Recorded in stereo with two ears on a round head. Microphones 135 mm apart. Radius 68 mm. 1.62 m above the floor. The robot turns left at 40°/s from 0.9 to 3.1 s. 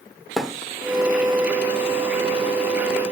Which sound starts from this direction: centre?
A thud, at 0.4 s.